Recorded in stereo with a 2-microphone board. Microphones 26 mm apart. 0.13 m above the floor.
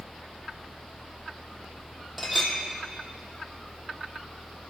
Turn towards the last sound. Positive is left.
turn(degrees=-5)  # may be behind; listen again after turning